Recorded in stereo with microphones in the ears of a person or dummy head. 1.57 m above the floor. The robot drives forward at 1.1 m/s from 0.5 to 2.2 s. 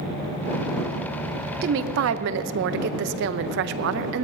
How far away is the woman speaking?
About 0.8 m.